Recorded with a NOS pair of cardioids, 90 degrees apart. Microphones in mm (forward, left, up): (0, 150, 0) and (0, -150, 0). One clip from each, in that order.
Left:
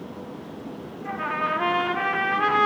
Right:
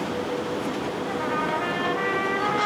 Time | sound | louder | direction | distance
1.1 | a trumpet | left 2 dB | 25° left | 2 m